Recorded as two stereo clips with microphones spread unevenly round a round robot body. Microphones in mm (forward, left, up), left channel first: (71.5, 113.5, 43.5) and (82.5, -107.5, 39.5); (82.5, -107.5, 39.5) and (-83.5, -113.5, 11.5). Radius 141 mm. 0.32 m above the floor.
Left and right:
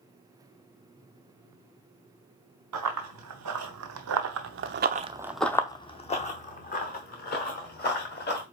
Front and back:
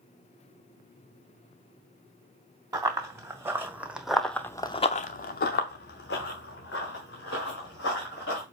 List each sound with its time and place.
2.7 s running footsteps: 105° right, 1.7 m; by 8.4 s 50° left, 2.5 m